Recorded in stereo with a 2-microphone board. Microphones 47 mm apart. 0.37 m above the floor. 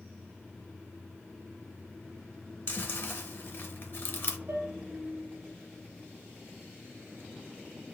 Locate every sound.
2.7 s chewing: 55° left (ahead or behind), 0.6 m
4.5 s dishes clattering: 50° right (ahead or behind), 1.4 m